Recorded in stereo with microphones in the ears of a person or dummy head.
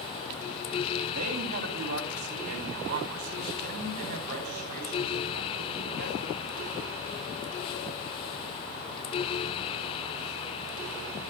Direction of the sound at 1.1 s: 45° right (ahead or behind).